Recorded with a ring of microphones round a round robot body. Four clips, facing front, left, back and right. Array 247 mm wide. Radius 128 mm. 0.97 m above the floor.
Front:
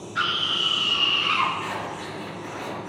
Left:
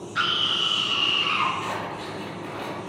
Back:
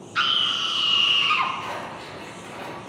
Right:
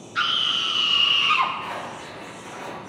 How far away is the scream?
About 2.0 m.